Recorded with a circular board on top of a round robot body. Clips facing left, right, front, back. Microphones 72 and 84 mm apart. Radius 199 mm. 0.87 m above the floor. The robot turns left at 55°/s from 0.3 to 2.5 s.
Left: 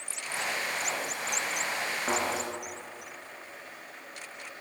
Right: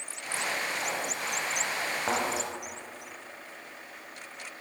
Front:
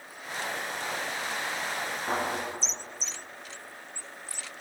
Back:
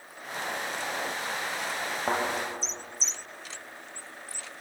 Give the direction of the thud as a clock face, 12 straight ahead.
5 o'clock.